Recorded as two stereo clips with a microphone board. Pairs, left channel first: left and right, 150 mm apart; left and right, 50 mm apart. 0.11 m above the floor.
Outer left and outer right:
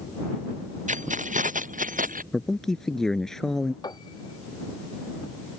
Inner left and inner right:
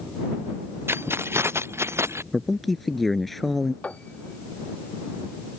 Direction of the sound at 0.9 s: 55° right (ahead or behind).